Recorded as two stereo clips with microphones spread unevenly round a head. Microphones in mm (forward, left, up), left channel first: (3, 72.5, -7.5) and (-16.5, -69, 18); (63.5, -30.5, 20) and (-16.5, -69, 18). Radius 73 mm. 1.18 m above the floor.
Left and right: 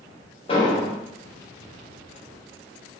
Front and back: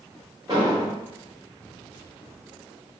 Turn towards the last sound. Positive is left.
turn(degrees=140)